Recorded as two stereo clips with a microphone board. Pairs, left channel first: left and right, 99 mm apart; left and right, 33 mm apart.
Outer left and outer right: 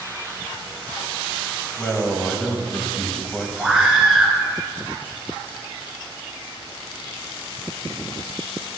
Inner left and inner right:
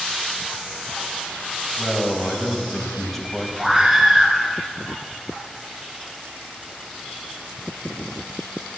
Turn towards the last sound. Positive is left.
turn(degrees=-5)  # may be behind; listen again after turning